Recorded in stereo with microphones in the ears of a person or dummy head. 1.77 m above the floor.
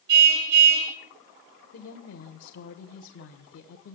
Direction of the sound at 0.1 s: 65° right (ahead or behind).